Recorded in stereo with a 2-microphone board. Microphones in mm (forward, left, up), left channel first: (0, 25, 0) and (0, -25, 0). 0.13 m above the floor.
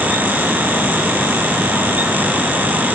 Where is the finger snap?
I don't hear a finger snap.